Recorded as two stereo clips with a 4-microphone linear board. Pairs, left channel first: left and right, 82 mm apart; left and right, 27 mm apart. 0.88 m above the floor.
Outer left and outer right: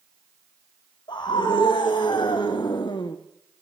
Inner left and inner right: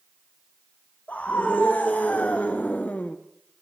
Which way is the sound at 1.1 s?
60° left (ahead or behind).